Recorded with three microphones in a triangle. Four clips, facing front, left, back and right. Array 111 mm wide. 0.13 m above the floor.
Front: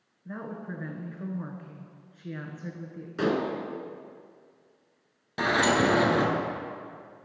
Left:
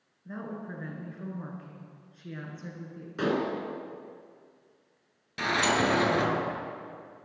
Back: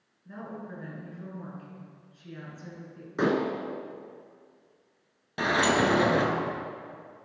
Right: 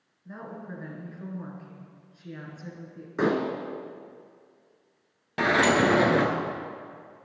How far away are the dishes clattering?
About 0.9 m.